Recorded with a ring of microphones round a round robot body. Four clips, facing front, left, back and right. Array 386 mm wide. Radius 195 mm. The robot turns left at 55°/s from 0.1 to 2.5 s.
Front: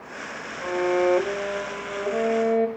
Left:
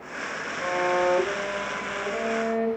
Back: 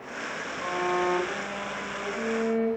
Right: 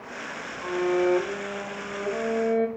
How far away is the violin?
About 3 m.